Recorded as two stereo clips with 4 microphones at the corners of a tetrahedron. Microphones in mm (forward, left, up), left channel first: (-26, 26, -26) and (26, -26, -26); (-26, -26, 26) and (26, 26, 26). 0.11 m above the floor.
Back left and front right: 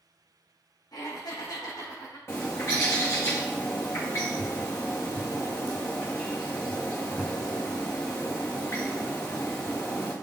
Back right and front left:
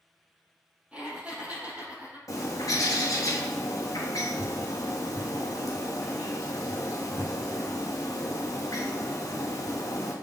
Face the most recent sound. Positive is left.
turn(degrees=-175)